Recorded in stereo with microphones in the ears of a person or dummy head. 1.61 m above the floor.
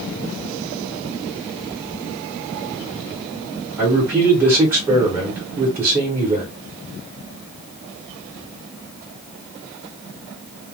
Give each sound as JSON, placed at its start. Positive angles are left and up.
{"t": 3.8, "sound": "a man speaking", "side_deg": -5, "distance_m": 0.7}